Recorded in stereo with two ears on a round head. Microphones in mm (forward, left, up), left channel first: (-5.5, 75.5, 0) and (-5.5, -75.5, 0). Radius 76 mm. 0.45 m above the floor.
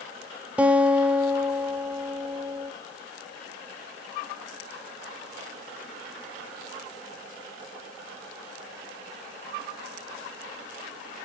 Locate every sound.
0.6 s a guitar: 10° right (ahead or behind), 0.8 m